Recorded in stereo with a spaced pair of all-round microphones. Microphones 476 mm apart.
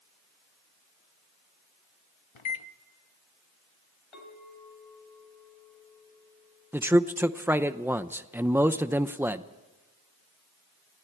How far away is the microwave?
About 1.0 m.